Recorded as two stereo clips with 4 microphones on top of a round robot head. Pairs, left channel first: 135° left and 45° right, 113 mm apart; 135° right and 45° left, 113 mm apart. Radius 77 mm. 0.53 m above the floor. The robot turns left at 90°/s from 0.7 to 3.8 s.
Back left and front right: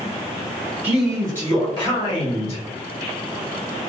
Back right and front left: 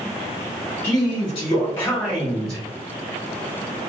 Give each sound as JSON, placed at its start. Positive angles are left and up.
{"t": 0.8, "sound": "a man speaking", "azimuth_deg": -115, "distance_m": 1.2}